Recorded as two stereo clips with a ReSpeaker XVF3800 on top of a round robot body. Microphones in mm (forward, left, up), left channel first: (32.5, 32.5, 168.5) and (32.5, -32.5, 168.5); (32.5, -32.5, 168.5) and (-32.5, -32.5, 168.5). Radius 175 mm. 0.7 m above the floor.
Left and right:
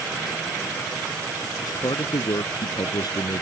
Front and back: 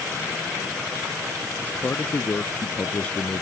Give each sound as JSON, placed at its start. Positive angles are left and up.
{"t": 1.6, "sound": "a man speaking", "azimuth_deg": 70}